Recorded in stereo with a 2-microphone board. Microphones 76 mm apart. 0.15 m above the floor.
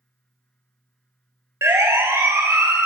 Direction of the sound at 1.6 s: 40° right (ahead or behind).